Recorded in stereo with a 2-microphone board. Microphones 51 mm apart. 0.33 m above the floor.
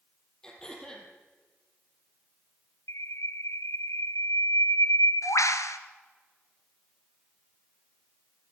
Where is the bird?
85° left, 1.4 m.